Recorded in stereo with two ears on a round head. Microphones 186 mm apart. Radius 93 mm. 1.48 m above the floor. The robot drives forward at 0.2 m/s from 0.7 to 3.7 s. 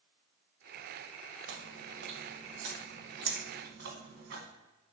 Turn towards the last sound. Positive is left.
turn(degrees=-50)  # may be behind; listen again after turning